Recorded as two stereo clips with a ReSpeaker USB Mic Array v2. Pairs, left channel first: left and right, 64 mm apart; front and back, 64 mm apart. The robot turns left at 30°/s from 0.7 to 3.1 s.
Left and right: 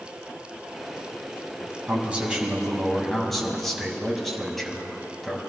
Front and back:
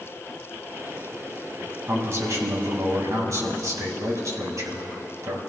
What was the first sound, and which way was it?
A man speaking, 150° right.